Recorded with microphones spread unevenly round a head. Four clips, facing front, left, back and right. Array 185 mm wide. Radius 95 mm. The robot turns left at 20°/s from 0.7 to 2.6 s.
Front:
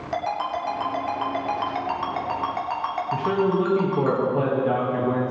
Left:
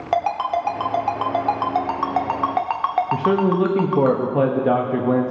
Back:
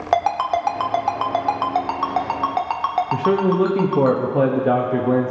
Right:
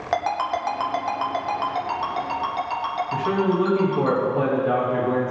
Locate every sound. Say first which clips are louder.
0.1 s a ringtone: left 3 dB, back 8 dB; 175° left, 0.9 m; by 4.1 s 135° left, 0.9 m
3.1 s a man speaking: left 1 dB, back 3 dB; 135° left, 1.0 m